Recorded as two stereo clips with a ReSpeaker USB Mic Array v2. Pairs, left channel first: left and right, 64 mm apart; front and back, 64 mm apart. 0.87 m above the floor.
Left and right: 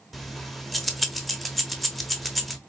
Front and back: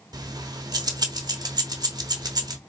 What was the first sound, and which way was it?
Keys jangling, straight behind.